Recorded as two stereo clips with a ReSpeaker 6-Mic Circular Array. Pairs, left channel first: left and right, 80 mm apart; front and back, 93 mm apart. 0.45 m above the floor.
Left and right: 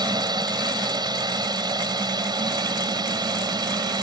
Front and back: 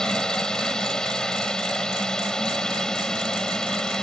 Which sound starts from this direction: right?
A drone, at 0.0 s.